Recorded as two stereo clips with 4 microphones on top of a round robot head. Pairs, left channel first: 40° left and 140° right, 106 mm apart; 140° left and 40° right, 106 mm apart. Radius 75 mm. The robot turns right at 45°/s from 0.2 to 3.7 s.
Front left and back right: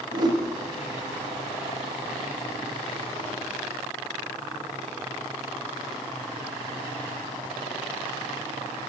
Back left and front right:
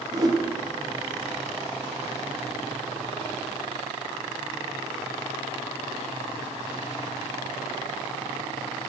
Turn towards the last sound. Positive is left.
turn(degrees=65)